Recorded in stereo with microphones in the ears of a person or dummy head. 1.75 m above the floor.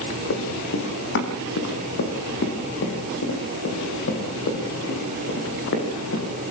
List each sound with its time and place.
0.3 s running footsteps: 65° left (ahead or behind), 5.5 m; by 6.3 s 60° left (ahead or behind), 9 m